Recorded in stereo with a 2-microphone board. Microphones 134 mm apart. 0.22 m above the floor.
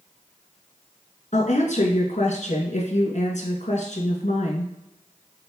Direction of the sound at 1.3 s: 65° left (ahead or behind).